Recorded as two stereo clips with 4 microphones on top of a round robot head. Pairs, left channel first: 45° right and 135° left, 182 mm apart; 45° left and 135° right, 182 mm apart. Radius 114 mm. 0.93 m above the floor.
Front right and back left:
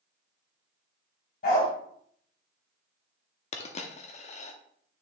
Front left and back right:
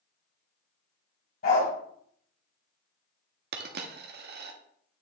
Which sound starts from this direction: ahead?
A dog barking, at 1.4 s.